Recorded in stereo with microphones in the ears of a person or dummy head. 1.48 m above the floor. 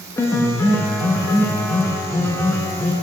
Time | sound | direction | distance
0.2 | a piano | 25° left (ahead or behind) | 0.7 m